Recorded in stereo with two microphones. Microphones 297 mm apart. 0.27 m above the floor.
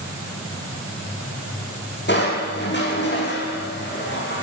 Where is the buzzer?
I don't hear a buzzer.